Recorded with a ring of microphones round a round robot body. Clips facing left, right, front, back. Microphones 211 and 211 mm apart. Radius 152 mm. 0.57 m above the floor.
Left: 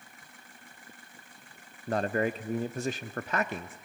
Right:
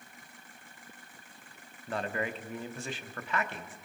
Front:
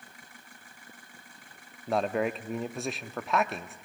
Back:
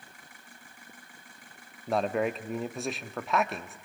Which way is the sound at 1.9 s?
90° left.